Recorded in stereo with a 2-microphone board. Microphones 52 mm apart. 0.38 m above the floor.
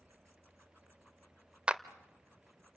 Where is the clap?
20° right (ahead or behind), 0.7 m.